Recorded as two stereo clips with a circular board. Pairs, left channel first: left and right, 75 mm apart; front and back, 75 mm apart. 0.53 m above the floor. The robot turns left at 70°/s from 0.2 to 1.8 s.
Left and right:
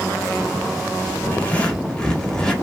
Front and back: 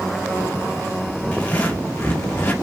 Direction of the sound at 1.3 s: 55° left.